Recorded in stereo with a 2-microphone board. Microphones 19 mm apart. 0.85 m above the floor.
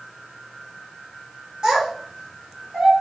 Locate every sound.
1.6 s a child speaking: 50° right (ahead or behind), 1.4 m